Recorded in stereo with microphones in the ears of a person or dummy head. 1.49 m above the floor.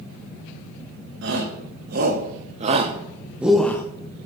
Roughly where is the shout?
Right.